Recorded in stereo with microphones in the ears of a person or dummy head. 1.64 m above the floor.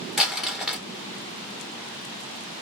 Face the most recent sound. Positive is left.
turn(degrees=-5)  # may be behind; listen again after turning